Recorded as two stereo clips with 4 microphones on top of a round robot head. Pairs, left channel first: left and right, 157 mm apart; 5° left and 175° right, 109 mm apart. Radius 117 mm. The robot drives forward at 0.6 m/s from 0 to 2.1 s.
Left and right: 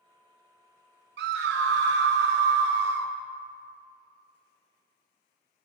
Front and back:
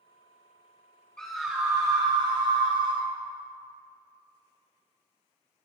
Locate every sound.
1.2 s a scream: 80° right, 1.0 m; by 3.1 s 115° right, 1.1 m